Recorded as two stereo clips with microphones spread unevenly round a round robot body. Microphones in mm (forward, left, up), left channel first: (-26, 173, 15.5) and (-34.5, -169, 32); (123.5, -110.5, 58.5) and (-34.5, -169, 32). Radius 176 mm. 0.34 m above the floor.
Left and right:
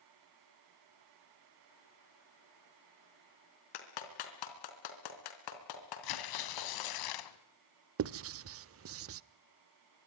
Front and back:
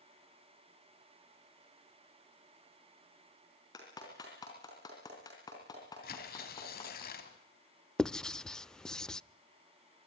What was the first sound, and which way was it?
A clap, 100° left.